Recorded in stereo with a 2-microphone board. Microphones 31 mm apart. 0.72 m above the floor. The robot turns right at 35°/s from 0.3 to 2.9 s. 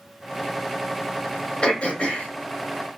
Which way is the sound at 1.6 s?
35° left (ahead or behind).